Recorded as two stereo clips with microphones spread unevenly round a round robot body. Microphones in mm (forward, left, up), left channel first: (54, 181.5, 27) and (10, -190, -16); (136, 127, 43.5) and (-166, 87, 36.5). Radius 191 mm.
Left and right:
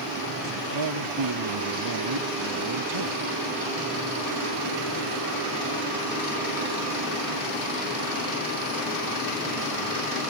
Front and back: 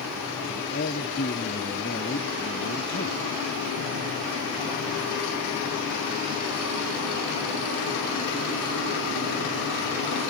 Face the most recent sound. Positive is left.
turn(degrees=-60)